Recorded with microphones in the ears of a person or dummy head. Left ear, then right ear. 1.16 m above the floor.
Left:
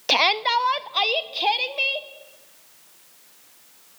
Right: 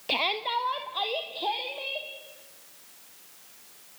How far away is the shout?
About 0.6 m.